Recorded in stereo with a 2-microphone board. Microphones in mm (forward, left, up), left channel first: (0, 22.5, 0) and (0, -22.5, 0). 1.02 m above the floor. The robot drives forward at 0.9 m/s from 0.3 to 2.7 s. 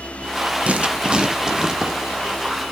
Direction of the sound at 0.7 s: 35° right (ahead or behind).